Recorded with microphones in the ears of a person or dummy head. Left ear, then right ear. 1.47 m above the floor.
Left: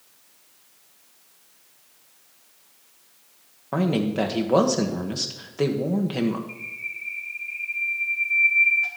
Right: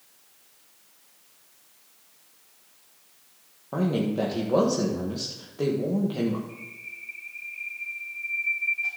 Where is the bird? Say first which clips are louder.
Left 7 dB; 50° left (ahead or behind), 1.7 m.